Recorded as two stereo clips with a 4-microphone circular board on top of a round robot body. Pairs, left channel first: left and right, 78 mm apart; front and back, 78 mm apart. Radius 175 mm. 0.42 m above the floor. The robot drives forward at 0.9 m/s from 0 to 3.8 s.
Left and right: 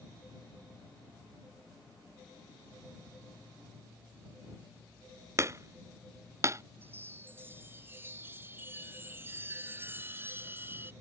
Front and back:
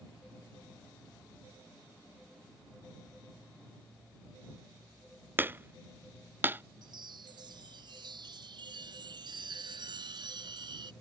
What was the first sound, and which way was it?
Hammering, 125° right.